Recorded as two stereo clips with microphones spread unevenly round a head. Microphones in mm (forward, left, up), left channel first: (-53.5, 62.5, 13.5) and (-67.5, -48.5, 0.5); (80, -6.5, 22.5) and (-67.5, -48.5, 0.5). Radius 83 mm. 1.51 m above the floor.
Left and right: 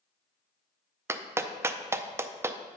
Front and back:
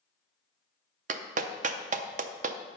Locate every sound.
1.1 s a clap: 160° right, 0.5 m